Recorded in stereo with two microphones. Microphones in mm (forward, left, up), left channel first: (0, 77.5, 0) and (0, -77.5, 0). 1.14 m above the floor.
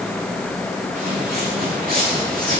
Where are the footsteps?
70° right (ahead or behind), 6 m; by 2.6 s 65° right (ahead or behind), 5 m.